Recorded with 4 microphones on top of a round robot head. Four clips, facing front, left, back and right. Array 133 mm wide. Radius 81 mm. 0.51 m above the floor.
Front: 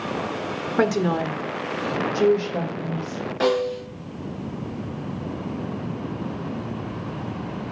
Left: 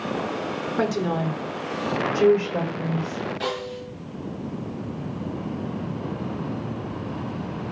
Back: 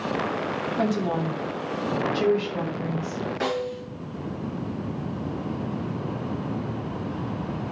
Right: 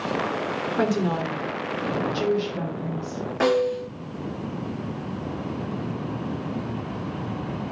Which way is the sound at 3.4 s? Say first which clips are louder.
Right 8 dB, front 9 dB; 60° right.